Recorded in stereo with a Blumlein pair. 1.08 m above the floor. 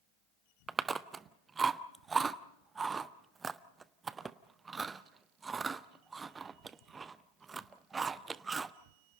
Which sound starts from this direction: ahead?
Chewing, at 0.7 s.